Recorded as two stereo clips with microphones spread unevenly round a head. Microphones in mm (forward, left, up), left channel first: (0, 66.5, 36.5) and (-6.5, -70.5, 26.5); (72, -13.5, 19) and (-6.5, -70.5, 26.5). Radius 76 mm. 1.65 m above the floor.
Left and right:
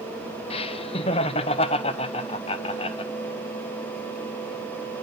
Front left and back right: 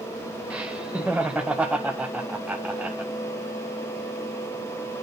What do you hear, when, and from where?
0.5 s laughter: 135° left, 0.8 m